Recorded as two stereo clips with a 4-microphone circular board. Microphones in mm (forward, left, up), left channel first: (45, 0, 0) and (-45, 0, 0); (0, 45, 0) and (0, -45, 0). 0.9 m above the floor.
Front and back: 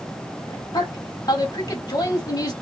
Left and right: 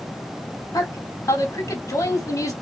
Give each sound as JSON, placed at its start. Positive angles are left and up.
{"t": 0.7, "sound": "a woman speaking", "azimuth_deg": 40, "distance_m": 2.5}